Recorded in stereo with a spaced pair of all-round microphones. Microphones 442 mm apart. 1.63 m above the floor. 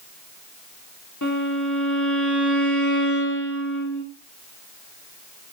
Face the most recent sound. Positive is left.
turn(degrees=40)  # may be behind; listen again after turning